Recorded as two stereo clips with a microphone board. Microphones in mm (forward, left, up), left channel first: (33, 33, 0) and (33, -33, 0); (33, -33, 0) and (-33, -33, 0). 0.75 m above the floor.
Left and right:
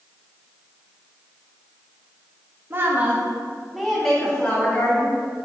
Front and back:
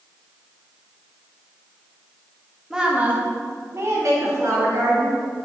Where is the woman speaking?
105° right, 1.2 m; by 5.1 s 155° left, 2.5 m.